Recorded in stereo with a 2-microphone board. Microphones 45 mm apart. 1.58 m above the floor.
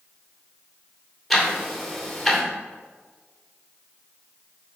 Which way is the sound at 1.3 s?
5° right (ahead or behind).